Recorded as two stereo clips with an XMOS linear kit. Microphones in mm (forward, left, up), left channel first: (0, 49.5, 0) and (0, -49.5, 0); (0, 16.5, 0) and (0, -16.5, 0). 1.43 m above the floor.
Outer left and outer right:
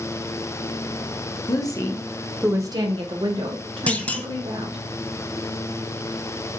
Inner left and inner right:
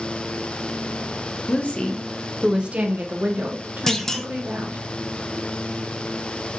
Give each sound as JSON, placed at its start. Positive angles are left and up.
{"t": 1.5, "sound": "a woman speaking", "side_deg": 45, "distance_m": 1.2}
{"t": 3.9, "sound": "a clunk", "side_deg": 15, "distance_m": 0.6}